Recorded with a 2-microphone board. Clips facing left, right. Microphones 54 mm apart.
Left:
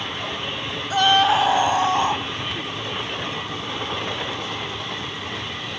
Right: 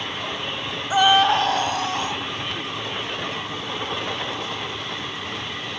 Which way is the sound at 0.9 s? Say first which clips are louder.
Right 1 dB; 15° right (ahead or behind).